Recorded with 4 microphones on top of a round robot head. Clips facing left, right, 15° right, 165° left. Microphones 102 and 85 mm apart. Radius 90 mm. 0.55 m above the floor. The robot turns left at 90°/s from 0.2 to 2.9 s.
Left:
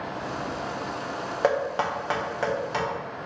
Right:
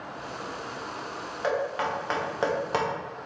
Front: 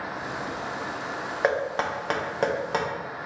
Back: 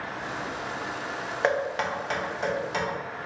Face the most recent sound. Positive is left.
turn(degrees=-65)